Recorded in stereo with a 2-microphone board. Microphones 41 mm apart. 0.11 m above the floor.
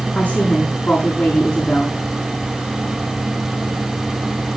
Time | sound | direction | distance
0.1 | a woman speaking | 40° left (ahead or behind) | 9 m